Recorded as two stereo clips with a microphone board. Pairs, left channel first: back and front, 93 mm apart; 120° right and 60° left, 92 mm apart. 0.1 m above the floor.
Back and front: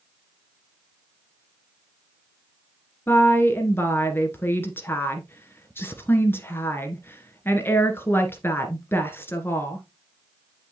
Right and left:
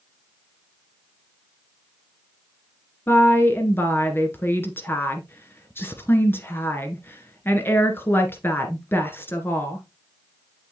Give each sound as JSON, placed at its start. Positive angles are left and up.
{"t": 3.1, "sound": "a woman speaking", "azimuth_deg": -150, "distance_m": 1.6}